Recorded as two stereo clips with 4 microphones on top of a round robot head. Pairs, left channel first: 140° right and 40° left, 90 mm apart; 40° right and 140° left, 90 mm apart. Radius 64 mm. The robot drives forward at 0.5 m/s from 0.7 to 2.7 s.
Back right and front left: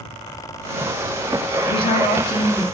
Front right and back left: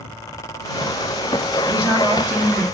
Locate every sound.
1.7 s a woman speaking: 145° right, 1.6 m; by 2.6 s 155° right, 2.0 m